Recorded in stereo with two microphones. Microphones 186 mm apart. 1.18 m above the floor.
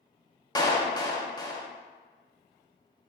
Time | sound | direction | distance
0.6 | a clap | 20° left (ahead or behind) | 1.5 m